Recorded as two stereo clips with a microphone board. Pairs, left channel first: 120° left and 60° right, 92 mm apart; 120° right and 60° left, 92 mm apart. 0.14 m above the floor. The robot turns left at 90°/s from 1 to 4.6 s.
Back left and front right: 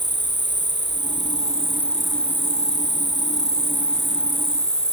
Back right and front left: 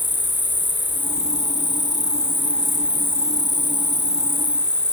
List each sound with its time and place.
0.0 s an insect: 55° right, 1.2 m; by 5.0 s 20° right, 1.2 m